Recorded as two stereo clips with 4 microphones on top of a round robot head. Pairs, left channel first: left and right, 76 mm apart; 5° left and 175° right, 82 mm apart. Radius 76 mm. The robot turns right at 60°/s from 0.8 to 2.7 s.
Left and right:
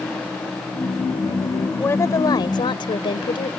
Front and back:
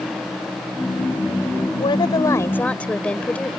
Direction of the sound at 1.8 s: 25° left.